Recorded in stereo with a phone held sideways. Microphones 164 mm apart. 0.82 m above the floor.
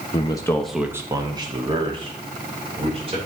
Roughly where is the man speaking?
Left.